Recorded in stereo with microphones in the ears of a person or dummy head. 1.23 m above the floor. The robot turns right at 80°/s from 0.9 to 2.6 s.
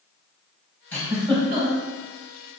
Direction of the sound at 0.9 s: 10° left (ahead or behind).